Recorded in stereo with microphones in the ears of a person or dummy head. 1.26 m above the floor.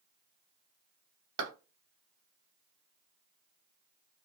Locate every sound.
1.4 s a clap: 45° right (ahead or behind), 1.0 m